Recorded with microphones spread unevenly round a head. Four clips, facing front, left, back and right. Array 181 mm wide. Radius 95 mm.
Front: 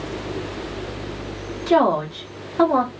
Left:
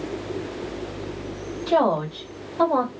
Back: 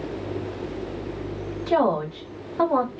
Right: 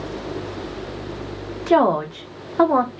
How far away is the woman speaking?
About 0.9 m.